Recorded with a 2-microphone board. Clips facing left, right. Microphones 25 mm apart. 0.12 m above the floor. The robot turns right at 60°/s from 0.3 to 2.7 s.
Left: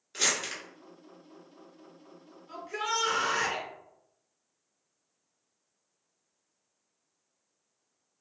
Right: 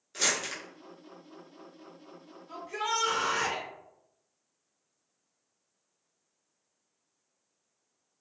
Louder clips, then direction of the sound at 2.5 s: Even; 20° left (ahead or behind).